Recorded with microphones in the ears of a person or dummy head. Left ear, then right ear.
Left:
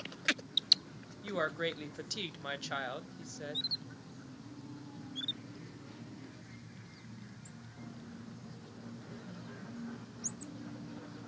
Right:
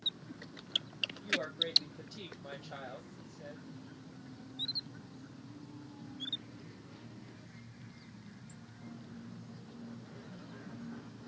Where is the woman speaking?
45° left (ahead or behind), 0.6 m.